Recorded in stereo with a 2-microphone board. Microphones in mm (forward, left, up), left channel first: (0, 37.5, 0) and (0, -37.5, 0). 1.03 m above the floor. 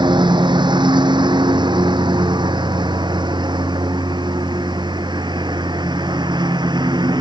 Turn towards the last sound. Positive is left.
turn(degrees=-75)  # may be behind; listen again after turning